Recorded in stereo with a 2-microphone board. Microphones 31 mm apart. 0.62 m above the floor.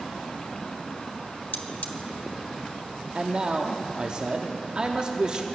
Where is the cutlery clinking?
55° left (ahead or behind), 1.2 m.